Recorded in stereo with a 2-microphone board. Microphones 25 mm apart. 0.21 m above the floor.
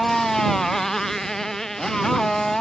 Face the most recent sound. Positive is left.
turn(degrees=20)  # may be behind; listen again after turning